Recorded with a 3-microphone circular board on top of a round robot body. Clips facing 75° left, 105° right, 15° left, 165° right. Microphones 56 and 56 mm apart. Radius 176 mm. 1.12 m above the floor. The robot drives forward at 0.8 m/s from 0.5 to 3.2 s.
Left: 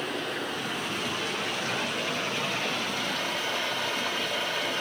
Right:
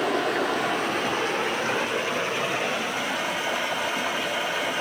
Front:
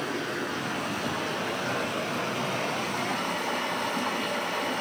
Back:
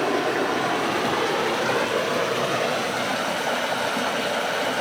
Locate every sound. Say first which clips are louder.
0.0 s running water: right 8 dB, back 9 dB; 135° right, 0.8 m; by 4.8 s 175° right, 2.5 m